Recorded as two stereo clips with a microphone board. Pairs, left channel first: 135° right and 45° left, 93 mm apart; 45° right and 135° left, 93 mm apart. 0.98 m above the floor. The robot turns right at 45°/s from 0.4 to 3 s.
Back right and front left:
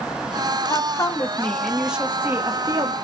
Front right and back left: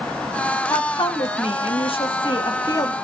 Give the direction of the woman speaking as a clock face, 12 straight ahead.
3 o'clock.